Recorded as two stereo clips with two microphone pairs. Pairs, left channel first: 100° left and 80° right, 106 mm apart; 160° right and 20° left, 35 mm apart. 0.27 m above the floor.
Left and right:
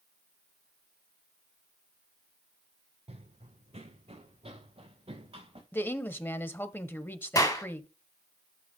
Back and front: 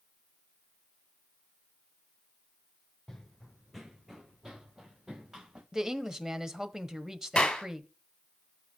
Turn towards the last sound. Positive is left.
turn(degrees=145)